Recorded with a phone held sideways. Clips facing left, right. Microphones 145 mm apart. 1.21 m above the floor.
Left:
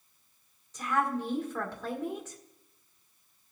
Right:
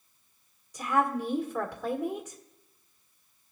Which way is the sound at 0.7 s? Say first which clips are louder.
Right 3 dB; 15° right (ahead or behind).